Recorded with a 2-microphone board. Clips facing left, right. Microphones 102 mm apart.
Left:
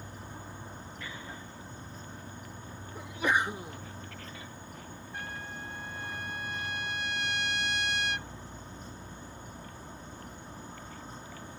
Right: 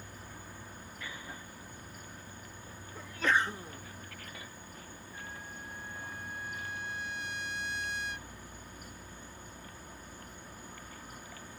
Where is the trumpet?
80° left.